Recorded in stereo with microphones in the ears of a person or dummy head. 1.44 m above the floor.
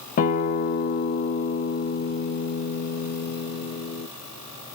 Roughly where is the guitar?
Left.